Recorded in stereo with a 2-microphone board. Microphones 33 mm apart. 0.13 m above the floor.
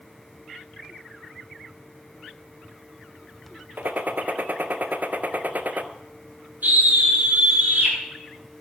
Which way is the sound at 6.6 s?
65° right (ahead or behind).